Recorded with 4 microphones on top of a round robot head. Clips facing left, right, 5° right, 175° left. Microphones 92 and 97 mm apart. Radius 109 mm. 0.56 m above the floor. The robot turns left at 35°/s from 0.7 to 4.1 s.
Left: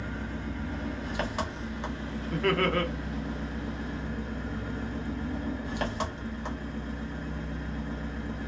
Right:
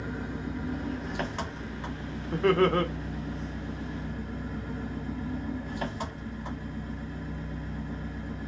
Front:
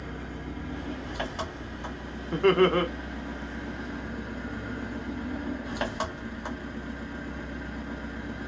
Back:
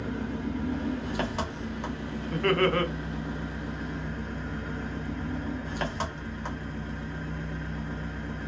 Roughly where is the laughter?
Ahead right.